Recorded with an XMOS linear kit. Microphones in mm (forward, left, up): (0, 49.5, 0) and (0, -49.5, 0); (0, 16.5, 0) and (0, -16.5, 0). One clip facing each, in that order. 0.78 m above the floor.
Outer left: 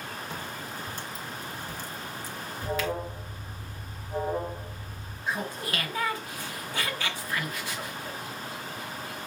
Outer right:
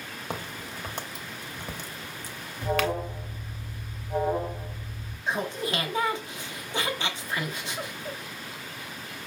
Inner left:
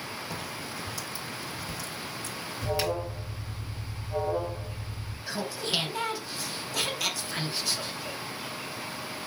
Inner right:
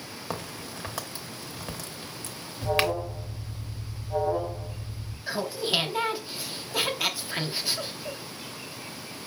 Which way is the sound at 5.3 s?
25° right (ahead or behind).